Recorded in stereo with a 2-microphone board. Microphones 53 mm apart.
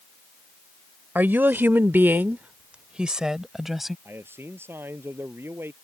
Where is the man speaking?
45° right (ahead or behind).